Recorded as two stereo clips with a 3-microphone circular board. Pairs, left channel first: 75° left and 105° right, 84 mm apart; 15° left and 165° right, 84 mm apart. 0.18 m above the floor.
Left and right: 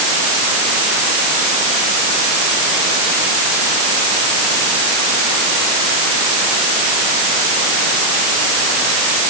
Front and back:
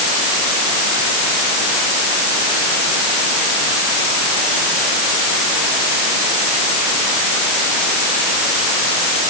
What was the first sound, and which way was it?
Only background noise.